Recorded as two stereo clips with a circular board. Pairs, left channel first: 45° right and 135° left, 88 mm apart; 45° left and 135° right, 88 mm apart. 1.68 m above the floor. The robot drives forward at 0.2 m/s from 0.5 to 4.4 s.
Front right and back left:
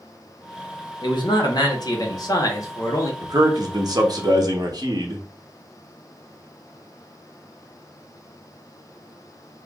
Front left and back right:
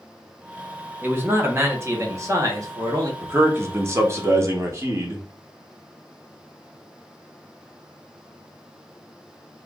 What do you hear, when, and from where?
1.0 s a man speaking: 70° right, 1.1 m; by 3.1 s 95° right, 1.0 m
3.2 s a man speaking: 170° left, 0.8 m